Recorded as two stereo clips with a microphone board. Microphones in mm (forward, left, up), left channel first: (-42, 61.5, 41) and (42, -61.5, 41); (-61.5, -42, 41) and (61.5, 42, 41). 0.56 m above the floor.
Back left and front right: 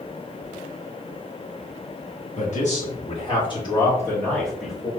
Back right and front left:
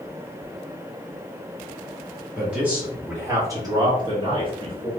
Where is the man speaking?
115° left, 1.5 m; by 4.9 s 20° left, 1.2 m.